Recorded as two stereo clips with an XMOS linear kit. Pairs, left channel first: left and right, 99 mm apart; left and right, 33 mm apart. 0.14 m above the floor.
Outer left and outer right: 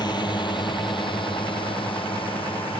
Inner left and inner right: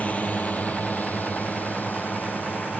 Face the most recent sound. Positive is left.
turn(degrees=75)  # may be behind; listen again after turning